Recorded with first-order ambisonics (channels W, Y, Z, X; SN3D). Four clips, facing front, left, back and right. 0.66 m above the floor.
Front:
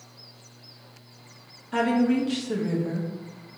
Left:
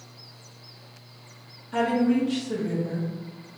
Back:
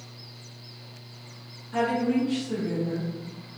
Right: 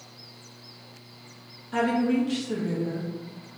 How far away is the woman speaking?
About 0.7 m.